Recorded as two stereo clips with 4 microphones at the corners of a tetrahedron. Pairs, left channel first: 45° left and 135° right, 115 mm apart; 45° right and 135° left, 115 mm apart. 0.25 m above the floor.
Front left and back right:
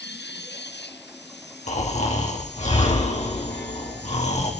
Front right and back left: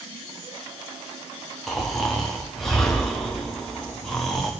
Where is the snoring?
40° left, 3.5 m.